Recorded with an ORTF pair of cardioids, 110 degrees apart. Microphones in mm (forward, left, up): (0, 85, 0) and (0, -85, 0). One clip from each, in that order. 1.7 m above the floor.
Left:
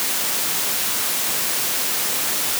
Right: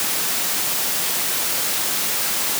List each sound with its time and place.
Only background noise.